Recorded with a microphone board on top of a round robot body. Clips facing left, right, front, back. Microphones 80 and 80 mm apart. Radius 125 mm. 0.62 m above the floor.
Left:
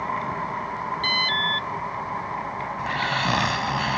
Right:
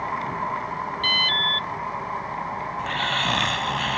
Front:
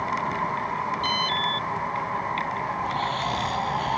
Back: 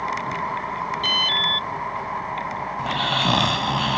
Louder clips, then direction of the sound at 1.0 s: Even, back 1 dB; 155° left.